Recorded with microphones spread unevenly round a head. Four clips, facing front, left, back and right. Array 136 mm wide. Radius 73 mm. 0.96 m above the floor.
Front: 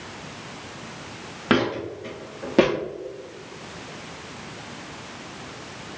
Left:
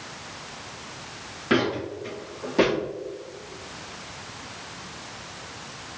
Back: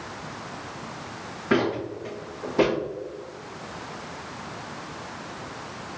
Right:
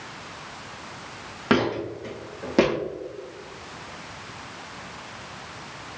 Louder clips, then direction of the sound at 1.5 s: Right 1 dB, front 1 dB; 35° right.